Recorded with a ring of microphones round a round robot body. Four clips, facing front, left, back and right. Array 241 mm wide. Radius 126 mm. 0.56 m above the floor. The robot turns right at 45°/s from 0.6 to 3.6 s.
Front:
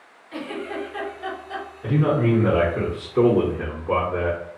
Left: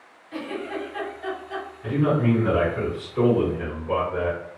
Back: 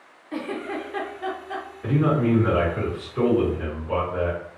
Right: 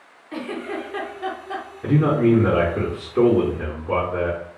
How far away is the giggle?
About 1.2 m.